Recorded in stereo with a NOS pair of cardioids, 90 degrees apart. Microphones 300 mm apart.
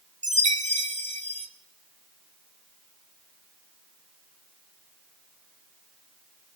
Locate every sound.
0.2 s a chime: 25° right, 2 m